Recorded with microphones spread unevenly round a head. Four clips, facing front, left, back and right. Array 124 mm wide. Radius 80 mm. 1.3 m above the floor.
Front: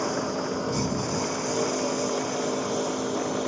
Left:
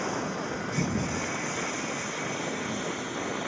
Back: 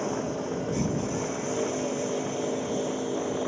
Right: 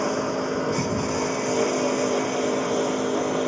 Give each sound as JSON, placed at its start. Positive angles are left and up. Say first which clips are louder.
{"t": 0.0, "sound": "a lawn mower", "louder": "right 7 dB, front 2 dB", "azimuth_deg": -95}